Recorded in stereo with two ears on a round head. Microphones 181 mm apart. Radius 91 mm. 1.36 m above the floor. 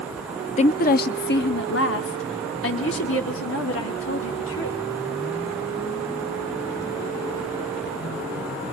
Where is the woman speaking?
35° left (ahead or behind), 0.5 m; by 4.8 s 75° left (ahead or behind), 3 m.